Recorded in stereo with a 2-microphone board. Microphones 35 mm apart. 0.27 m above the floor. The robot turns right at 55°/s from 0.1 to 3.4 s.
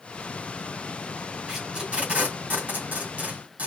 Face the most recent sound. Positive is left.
turn(degrees=-50)  # may be behind; listen again after turning